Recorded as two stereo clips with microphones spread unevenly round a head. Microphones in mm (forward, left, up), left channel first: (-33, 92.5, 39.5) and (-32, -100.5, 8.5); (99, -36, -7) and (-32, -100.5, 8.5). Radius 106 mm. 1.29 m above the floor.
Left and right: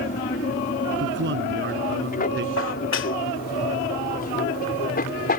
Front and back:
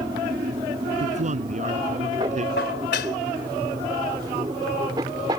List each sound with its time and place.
0.0 s an aircraft: 135° left
1.0 s a man speaking: 120° right
2.6 s dishes clattering: 55° left